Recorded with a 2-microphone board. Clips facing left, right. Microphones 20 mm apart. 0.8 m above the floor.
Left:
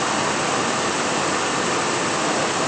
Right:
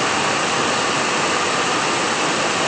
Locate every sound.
Only background noise.